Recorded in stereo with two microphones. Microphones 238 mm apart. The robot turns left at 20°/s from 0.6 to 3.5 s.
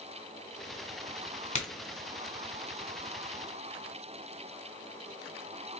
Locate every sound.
1.6 s a crack: 30° left (ahead or behind), 1.5 m